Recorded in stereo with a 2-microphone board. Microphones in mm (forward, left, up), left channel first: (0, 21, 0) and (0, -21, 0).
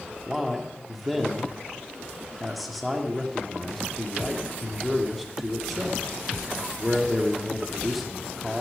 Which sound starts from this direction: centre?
A man speaking, at 0.3 s.